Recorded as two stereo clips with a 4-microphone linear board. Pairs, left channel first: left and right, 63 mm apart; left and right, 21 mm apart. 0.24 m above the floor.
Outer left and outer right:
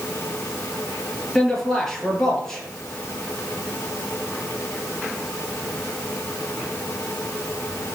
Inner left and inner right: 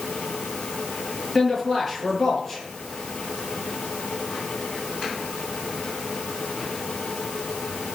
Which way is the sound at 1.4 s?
5° left (ahead or behind).